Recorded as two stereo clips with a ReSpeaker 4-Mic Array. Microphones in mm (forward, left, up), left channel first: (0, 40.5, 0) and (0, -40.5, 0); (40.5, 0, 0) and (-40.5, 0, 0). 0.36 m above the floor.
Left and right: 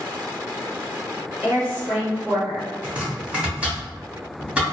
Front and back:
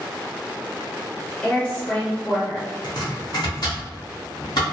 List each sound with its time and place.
1.4 s a woman speaking: 60° right, 1.0 m
2.8 s chopping: 15° right, 1.2 m